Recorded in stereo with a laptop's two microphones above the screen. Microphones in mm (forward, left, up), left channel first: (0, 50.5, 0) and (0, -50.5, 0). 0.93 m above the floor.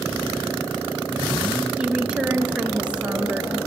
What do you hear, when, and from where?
1.8 s a woman speaking: 10° right (ahead or behind), 0.7 m